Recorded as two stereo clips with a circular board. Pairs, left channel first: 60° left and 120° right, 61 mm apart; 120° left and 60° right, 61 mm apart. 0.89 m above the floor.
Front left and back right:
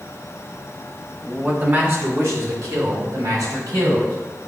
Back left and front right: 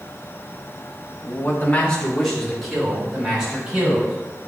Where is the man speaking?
165° left, 1.4 m; by 4.1 s 140° right, 4.5 m.